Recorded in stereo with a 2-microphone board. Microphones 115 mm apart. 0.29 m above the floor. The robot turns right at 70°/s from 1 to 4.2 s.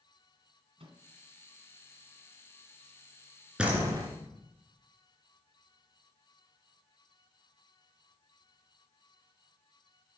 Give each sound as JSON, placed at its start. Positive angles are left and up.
{"t": 0.8, "sound": "a microwave", "side_deg": -55, "distance_m": 1.7}
{"t": 3.6, "sound": "a door slam", "azimuth_deg": -170, "distance_m": 2.5}